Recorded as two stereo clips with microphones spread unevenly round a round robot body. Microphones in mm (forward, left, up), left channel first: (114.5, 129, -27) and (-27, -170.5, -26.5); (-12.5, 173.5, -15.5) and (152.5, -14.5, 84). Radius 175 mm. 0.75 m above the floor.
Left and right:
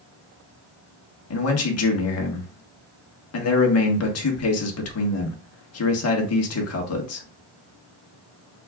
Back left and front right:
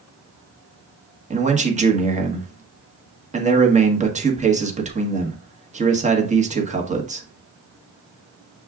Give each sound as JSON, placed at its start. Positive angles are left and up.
{"t": 1.3, "sound": "a man speaking", "azimuth_deg": 25, "distance_m": 1.4}